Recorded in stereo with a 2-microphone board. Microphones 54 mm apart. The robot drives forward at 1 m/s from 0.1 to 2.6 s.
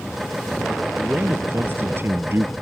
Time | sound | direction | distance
1.0 | a man speaking | 40° right (ahead or behind) | ?